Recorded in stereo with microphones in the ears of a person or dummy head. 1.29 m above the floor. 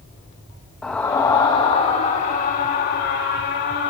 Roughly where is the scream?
Centre.